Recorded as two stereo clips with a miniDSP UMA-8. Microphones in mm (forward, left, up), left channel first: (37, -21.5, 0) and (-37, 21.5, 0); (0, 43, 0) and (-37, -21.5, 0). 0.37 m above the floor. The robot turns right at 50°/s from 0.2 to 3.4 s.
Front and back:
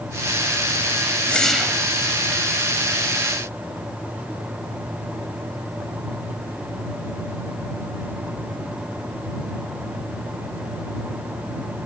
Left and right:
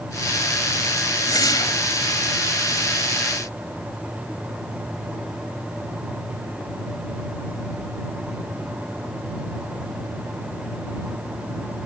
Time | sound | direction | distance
1.3 | a whoosh | 45° left | ?